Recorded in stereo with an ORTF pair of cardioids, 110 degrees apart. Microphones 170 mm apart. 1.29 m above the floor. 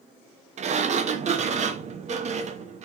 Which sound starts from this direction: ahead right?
A sliding door, at 0.6 s.